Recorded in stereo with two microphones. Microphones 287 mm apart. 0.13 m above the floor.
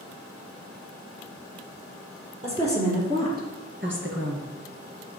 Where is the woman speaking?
20° right (ahead or behind), 3 m; by 4.5 s 50° right (ahead or behind), 2 m.